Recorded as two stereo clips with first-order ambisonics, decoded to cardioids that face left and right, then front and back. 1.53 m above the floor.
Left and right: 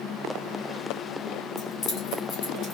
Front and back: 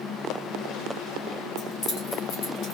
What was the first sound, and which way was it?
Keys jangling, 65° left.